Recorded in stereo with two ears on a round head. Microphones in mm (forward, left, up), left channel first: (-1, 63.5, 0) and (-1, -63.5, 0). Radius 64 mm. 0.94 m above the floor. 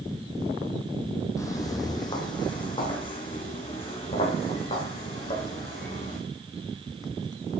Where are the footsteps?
20° left (ahead or behind), 1.3 m; by 6.2 s 40° left (ahead or behind), 4 m.